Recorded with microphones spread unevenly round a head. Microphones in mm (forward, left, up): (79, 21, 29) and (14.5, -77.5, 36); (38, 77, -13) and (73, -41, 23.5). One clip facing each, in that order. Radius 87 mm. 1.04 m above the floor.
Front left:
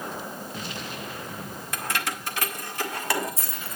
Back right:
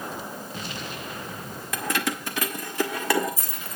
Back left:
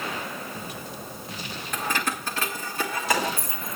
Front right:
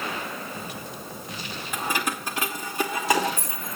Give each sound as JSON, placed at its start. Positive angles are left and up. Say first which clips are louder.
{"t": 1.7, "sound": "keys jangling", "louder": "back right 4 dB, even", "azimuth_deg": -150, "distance_m": 0.7}